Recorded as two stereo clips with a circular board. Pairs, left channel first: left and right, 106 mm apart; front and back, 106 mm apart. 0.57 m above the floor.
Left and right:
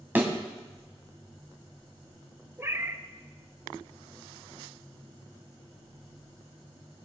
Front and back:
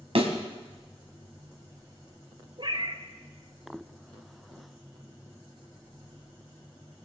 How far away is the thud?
About 1.9 m.